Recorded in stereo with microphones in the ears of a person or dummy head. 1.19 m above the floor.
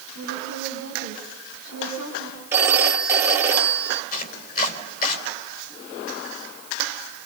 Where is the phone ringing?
5° right (ahead or behind), 2.5 m.